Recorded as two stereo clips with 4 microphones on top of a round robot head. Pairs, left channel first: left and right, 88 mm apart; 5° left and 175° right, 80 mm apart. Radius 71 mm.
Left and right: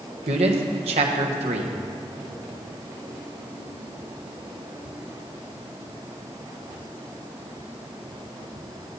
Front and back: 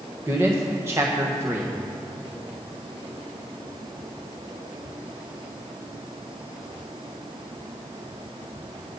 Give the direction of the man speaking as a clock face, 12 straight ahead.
4 o'clock.